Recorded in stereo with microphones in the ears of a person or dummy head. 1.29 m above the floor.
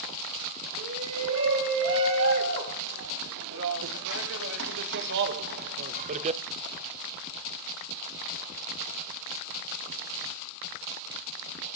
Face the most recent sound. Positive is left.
turn(degrees=-25)  # may be behind; listen again after turning